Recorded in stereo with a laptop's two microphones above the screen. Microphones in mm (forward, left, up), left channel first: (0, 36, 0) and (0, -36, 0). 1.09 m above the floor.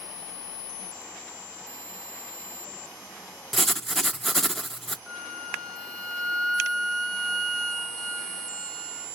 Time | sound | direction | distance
3.5 | writing | 5° left (ahead or behind) | 0.5 m
5.1 | a flute | 10° left (ahead or behind) | 0.9 m